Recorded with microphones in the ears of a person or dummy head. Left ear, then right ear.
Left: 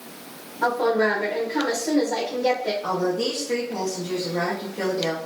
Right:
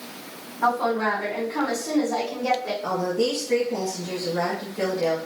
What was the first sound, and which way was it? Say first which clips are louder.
A woman speaking: left 1 dB; 30° left (ahead or behind).